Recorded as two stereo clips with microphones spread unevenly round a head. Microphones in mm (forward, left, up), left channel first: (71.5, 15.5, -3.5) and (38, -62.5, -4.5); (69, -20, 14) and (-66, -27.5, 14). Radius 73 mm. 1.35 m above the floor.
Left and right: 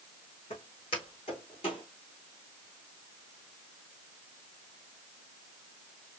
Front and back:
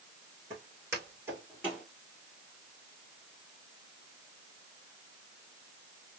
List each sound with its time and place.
0.5 s footsteps: 115° left, 5 m; by 1.9 s 100° left, 4.5 m